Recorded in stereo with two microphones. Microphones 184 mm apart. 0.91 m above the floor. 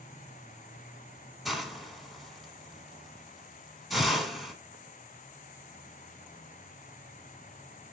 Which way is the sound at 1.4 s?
Centre (ahead or behind).